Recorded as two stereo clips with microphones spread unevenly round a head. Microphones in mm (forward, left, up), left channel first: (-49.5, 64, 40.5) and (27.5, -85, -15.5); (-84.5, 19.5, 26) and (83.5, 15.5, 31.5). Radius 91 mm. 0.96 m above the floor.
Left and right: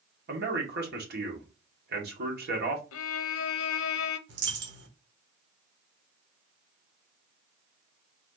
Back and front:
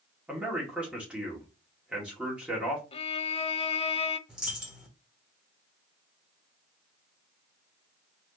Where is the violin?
125° left, 0.5 m.